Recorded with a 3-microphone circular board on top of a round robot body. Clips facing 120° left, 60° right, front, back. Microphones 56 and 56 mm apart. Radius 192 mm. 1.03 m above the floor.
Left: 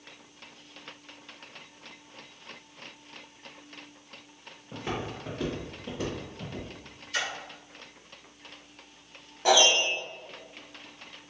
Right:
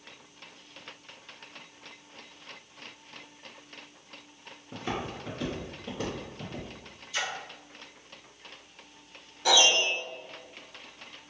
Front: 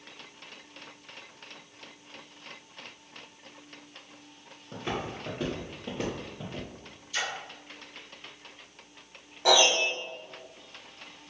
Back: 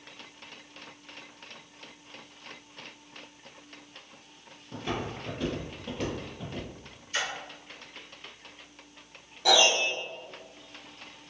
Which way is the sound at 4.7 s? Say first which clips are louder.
Even, even; 70° left.